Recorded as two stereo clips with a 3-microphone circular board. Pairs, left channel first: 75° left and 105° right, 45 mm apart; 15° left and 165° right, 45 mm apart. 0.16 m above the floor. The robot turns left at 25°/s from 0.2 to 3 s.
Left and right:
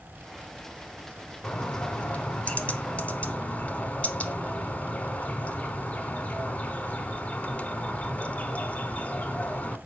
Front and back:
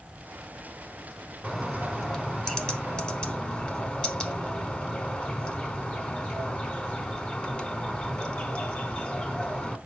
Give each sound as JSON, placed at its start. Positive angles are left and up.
{"t": 1.4, "sound": "a bird", "azimuth_deg": 100, "distance_m": 0.9}